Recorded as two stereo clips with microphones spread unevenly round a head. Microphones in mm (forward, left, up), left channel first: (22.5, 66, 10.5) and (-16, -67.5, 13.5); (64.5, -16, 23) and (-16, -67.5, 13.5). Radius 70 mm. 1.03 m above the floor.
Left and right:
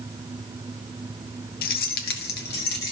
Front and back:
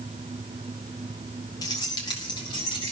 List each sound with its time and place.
1.6 s keys jangling: 95° left, 0.6 m; by 2.9 s 90° left, 1.8 m